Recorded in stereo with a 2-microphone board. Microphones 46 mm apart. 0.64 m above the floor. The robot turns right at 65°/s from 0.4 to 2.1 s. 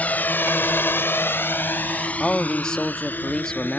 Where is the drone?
40° left (ahead or behind); by 3.8 s 50° left (ahead or behind).